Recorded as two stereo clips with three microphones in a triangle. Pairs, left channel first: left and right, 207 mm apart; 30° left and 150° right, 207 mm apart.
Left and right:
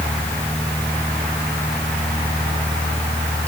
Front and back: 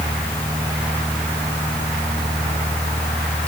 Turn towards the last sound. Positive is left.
No sound to turn to.